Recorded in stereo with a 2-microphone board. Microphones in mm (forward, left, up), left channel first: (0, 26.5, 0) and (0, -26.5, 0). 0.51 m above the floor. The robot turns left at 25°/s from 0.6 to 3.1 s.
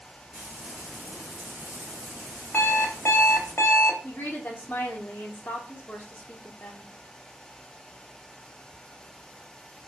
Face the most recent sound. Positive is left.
turn(degrees=30)  # may be behind; listen again after turning